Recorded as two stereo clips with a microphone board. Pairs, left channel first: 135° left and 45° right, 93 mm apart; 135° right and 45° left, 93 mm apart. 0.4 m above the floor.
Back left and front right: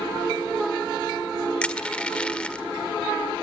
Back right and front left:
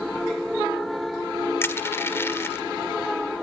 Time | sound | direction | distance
1.6 | crushing | 160° right | 1.6 m